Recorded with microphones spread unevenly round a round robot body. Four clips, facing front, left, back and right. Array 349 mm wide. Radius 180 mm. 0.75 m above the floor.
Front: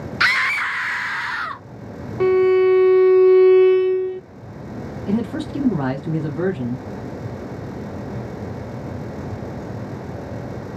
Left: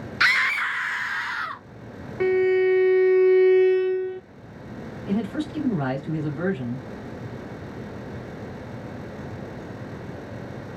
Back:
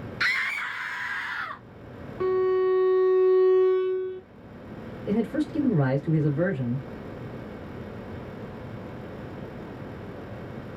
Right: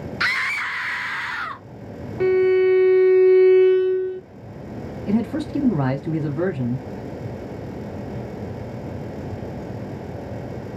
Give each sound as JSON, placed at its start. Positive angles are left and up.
{"t": 0.2, "sound": "a scream", "azimuth_deg": 25, "distance_m": 0.9}
{"t": 2.2, "sound": "a violin", "azimuth_deg": -5, "distance_m": 0.6}
{"t": 5.1, "sound": "a man speaking", "azimuth_deg": -45, "distance_m": 2.0}